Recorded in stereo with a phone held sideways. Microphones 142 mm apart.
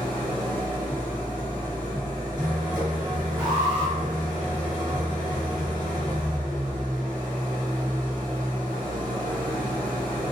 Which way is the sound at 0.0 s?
30° right (ahead or behind).